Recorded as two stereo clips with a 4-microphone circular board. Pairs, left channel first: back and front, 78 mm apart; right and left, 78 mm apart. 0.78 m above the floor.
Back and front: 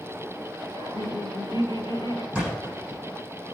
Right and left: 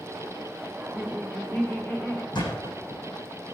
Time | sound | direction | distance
0.8 | laughter | straight behind | 2 m
2.3 | a thud | 75° right | 7 m